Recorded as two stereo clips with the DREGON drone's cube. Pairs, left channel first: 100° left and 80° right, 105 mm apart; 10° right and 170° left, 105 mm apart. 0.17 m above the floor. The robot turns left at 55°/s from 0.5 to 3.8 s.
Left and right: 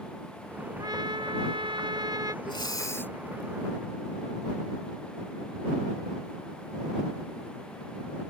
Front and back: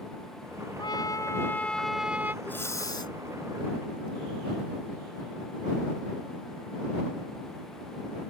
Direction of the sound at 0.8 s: 40° right.